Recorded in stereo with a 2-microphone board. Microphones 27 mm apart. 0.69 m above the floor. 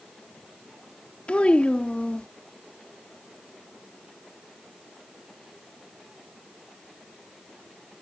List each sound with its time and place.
1.3 s a child speaking: 50° left (ahead or behind)